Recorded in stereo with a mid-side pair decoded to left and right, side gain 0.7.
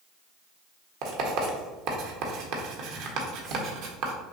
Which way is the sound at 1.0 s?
65° right.